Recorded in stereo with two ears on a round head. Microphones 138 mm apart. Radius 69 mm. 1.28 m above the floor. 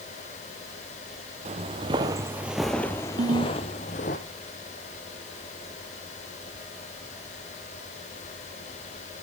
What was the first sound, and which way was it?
Footsteps, 45° right (ahead or behind).